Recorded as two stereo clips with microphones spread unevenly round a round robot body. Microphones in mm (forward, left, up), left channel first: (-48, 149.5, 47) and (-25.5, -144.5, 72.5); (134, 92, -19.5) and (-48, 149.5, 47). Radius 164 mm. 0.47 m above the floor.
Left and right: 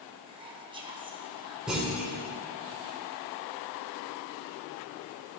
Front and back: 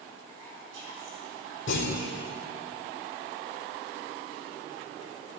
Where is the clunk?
Straight ahead, 3 m.